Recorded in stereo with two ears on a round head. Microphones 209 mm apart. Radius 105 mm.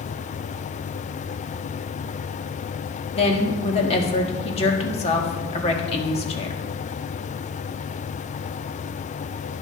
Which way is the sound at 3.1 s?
25° left (ahead or behind).